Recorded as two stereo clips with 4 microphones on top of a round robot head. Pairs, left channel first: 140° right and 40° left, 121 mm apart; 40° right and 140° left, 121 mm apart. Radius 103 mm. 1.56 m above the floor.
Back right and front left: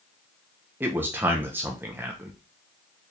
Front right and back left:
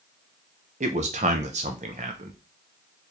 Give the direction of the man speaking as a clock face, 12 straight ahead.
8 o'clock.